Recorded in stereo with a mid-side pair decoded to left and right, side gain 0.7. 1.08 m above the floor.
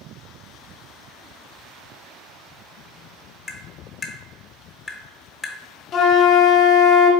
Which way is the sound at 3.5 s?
15° left.